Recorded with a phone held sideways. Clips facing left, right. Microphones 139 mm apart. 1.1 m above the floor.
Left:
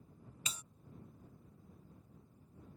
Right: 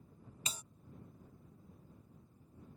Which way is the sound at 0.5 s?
30° right (ahead or behind).